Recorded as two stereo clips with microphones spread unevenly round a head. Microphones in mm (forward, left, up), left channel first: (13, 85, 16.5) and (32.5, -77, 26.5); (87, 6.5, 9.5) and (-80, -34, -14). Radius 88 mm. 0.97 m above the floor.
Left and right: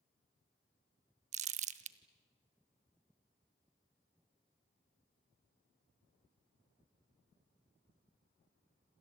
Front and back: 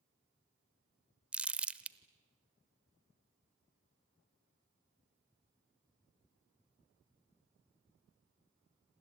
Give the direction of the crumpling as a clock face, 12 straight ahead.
3 o'clock.